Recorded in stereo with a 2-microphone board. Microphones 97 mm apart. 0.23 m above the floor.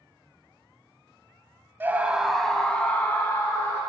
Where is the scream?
20° right (ahead or behind), 1.0 m; by 3.8 s 30° left (ahead or behind), 2 m.